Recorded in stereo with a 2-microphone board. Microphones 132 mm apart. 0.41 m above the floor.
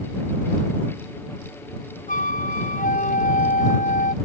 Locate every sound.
2.1 s a flute: 70° left (ahead or behind)